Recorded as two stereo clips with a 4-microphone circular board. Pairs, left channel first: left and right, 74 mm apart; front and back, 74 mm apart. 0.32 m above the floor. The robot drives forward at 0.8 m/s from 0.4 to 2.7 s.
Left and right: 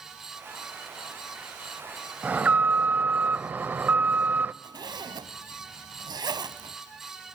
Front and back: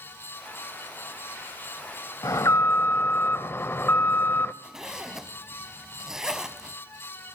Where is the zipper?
100° right, 0.7 m.